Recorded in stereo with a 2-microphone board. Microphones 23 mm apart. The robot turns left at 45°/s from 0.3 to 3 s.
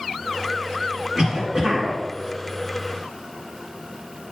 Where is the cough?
110° right, 2.0 m; by 2.0 s 145° right, 2.0 m.